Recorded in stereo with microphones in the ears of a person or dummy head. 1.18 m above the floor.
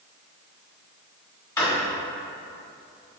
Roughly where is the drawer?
Left.